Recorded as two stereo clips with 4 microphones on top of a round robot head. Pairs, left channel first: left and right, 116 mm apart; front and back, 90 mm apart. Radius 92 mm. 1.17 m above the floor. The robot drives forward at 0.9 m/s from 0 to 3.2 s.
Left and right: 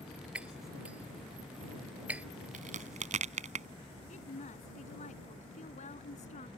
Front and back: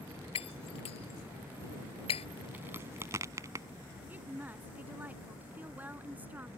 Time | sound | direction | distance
0.3 | breaking glass | 10° right | ?
2.5 | a crack | 105° right | ?
4.1 | a woman speaking | 110° left | ?